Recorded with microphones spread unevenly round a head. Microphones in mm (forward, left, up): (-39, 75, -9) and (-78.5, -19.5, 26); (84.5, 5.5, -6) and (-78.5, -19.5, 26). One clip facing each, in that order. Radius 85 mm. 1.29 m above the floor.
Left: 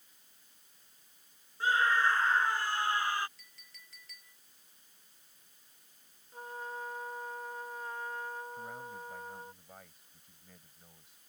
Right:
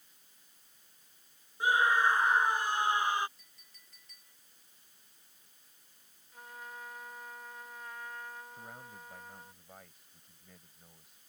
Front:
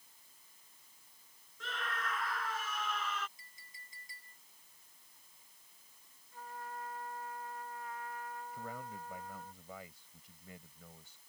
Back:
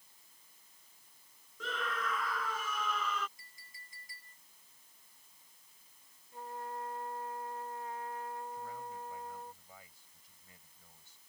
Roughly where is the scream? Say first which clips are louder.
Right 1 dB, back 4 dB; behind.